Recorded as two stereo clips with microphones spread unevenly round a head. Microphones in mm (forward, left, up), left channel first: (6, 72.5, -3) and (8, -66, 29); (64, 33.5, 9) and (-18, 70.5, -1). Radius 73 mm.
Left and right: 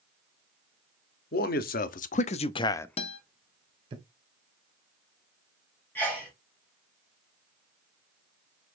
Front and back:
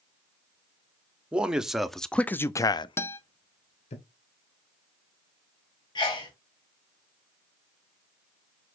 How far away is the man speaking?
About 0.9 m.